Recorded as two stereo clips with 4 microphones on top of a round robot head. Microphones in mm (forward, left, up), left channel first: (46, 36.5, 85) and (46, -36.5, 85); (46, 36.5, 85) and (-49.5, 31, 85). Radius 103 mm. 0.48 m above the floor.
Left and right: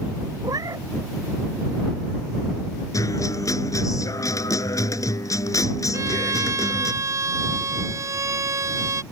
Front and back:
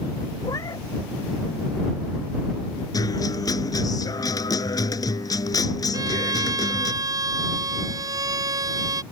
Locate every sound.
0.4 s a cat meowing: 55° right
2.9 s a guitar: 50° left
5.9 s a violin: 130° right